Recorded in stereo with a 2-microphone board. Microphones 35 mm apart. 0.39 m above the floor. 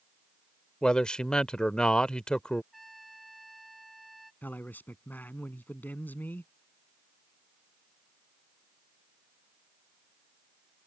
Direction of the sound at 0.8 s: 25° left (ahead or behind).